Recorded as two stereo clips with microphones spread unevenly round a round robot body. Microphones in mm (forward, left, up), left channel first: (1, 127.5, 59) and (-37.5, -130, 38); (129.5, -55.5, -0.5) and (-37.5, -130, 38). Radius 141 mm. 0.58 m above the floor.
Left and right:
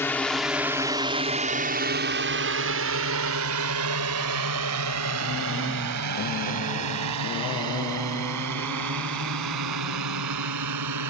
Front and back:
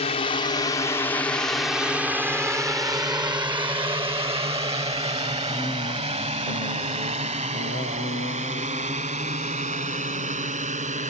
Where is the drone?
Straight ahead; by 11.1 s 110° right.